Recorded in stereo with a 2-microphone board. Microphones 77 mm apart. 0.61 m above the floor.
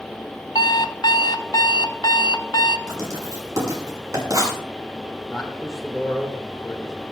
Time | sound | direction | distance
0.6 | an alarm clock | 65° left (ahead or behind) | 0.8 m
2.9 | writing | 50° right (ahead or behind) | 6.5 m
5.3 | a man speaking | centre (ahead or behind) | 2.5 m